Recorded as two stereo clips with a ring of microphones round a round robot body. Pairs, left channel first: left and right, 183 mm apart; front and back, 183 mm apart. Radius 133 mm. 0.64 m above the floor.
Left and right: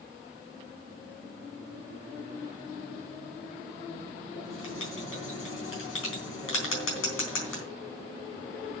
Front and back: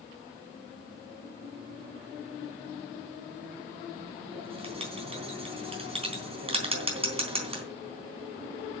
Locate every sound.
4.3 s writing: 120° left, 3.5 m